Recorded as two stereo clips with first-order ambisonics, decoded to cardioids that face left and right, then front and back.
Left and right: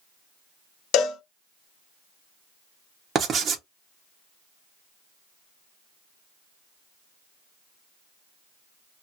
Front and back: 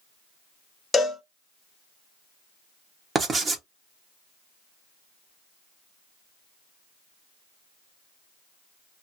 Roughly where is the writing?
Behind right.